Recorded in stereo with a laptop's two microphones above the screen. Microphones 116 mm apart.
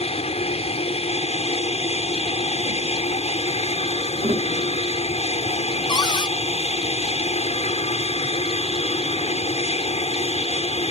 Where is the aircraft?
70° left (ahead or behind).